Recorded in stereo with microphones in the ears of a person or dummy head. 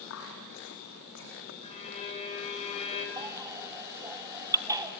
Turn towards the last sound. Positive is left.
turn(degrees=-15)  # may be behind; listen again after turning